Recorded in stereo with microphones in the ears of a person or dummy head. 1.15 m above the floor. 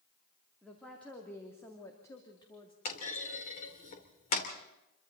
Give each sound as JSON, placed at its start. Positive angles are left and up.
{"t": 0.6, "sound": "a woman speaking", "side_deg": 0, "distance_m": 3.0}
{"t": 2.9, "sound": "a clunk", "side_deg": 40, "distance_m": 2.5}